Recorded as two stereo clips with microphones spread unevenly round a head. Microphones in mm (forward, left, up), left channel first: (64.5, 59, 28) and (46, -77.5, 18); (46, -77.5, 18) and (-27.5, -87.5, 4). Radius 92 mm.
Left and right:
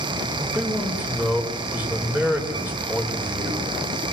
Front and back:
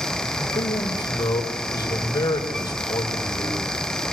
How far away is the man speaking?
About 5.5 m.